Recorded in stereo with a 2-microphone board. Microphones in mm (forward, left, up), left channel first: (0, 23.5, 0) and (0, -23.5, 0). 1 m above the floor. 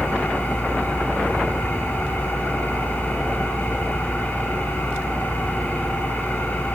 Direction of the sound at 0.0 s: 45° left (ahead or behind).